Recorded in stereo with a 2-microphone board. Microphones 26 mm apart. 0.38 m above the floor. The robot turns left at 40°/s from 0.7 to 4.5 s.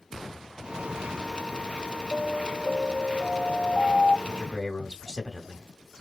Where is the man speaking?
10° left (ahead or behind), 1.7 m; by 5.7 s 20° left (ahead or behind), 1.7 m.